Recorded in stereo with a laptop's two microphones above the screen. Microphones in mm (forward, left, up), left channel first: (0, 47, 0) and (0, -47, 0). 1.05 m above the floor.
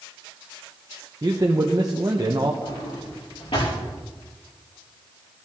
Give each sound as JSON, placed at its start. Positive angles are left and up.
{"t": 1.2, "sound": "a man speaking", "side_deg": -40, "distance_m": 0.8}
{"t": 2.6, "sound": "a drawer", "side_deg": 80, "distance_m": 6.0}